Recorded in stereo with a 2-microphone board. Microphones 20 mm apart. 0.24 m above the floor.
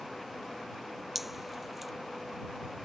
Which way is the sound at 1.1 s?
10° right (ahead or behind).